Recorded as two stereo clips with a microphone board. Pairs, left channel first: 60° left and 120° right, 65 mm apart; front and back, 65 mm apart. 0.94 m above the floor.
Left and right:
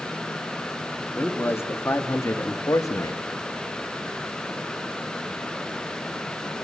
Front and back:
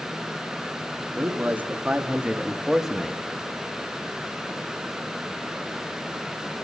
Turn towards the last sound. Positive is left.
turn(degrees=85)